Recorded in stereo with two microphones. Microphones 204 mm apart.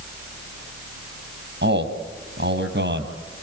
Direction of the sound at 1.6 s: 60° right (ahead or behind).